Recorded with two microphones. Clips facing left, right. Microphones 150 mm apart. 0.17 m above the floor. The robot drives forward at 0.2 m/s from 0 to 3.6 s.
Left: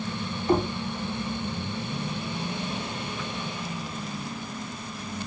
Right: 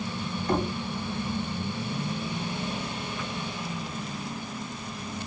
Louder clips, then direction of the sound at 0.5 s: Left 4 dB; 5° left (ahead or behind).